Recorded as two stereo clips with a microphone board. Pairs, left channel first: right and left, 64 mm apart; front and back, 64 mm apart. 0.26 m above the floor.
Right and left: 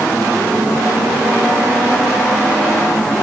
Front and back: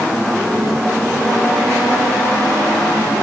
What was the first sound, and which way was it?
Only background noise.